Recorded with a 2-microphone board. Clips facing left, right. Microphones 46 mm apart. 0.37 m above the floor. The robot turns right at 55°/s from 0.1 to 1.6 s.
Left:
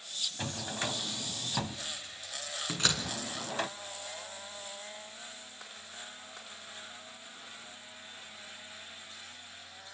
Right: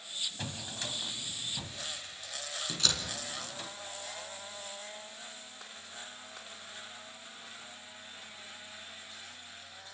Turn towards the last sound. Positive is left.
turn(degrees=35)  # may be behind; listen again after turning